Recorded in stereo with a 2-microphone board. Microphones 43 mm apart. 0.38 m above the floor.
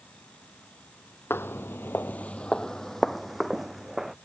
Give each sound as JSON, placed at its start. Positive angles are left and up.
{"t": 1.3, "sound": "footsteps", "side_deg": 65}